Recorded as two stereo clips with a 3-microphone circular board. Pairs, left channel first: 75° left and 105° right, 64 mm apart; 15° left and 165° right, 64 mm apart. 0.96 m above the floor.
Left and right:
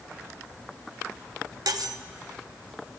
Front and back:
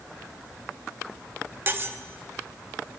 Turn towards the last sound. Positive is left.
turn(degrees=-115)